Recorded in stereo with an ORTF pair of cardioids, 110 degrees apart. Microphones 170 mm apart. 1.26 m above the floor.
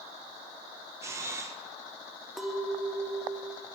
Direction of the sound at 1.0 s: 15° right.